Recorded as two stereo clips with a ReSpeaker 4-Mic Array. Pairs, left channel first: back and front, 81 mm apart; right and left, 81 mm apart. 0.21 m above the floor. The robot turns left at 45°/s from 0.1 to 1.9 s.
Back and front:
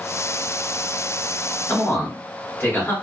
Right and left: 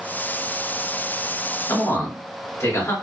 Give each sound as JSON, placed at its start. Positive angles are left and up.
{"t": 1.7, "sound": "a man speaking", "azimuth_deg": -115, "distance_m": 2.0}